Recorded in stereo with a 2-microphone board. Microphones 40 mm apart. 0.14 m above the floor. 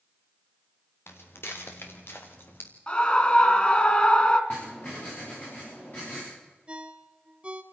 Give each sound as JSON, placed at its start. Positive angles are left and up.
{"t": 1.1, "sound": "footsteps", "side_deg": 75, "distance_m": 4.0}
{"t": 2.9, "sound": "a scream", "side_deg": 25, "distance_m": 1.6}
{"t": 4.5, "sound": "writing", "side_deg": 40, "distance_m": 9.5}
{"t": 6.7, "sound": "a ringtone", "side_deg": -25, "distance_m": 1.2}